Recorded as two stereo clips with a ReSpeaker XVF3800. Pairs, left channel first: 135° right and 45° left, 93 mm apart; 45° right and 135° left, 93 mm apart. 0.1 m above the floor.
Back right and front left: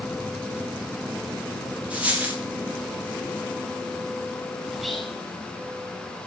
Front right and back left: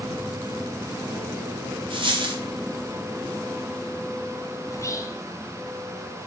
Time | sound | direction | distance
1.9 | a dropped coin | 120° left | 2 m
4.7 | whispering | 45° right | 1.6 m